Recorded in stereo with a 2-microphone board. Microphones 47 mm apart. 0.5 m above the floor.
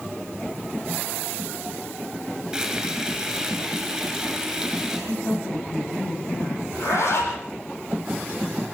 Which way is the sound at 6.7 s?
65° left (ahead or behind).